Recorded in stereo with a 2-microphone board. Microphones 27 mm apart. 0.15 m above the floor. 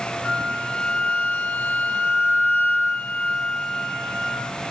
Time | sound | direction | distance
0.2 | a flute | 75° left (ahead or behind) | 2.5 m